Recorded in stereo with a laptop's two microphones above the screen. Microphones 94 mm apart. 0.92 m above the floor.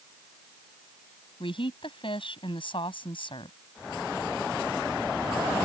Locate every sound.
1.4 s a woman speaking: 60° left (ahead or behind)